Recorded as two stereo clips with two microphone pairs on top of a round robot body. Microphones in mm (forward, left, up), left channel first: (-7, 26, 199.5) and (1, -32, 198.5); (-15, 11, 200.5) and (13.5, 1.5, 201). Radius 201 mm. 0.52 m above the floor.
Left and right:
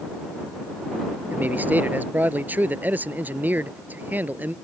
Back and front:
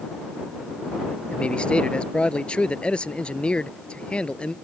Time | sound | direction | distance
1.3 | a man speaking | 145° right | ?